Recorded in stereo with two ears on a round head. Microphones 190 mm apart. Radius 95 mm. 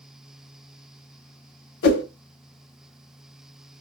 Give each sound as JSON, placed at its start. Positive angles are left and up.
{"t": 1.8, "sound": "a whoosh", "side_deg": 50, "distance_m": 0.6}